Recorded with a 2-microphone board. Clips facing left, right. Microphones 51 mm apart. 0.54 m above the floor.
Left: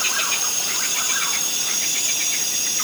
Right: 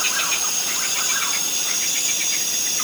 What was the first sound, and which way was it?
Only background noise.